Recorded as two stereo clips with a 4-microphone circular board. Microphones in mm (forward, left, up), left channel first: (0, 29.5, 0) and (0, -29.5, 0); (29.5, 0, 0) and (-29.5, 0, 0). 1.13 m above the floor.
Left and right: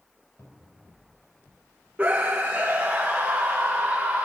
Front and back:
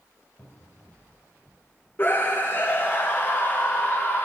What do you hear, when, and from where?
0.4 s a cupboard door: 50° left, 2.5 m
2.0 s a scream: 35° right, 0.8 m